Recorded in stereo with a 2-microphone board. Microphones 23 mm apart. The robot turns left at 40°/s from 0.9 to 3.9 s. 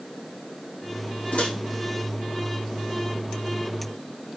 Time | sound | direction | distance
1.3 | a microwave | 65° left (ahead or behind) | 7.5 m